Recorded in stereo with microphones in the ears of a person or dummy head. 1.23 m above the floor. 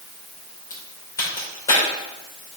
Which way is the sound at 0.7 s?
15° left (ahead or behind).